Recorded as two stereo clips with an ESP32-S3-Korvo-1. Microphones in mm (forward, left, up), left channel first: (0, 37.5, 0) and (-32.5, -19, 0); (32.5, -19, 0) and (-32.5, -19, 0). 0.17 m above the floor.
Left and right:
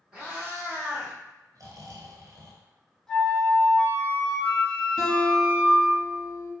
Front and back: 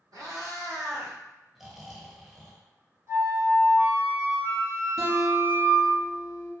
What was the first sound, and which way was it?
A cat meowing, 170° left.